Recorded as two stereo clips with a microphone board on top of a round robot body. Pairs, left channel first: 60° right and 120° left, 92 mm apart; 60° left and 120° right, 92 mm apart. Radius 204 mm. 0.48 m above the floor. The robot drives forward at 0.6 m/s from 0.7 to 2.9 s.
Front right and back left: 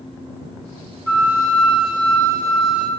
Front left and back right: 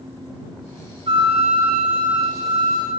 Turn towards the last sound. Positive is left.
turn(degrees=-155)